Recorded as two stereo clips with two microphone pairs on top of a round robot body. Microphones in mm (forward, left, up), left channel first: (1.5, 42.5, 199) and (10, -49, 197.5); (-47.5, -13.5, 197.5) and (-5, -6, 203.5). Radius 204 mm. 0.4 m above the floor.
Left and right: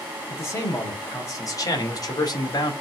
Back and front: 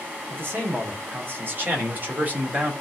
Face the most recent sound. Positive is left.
turn(degrees=60)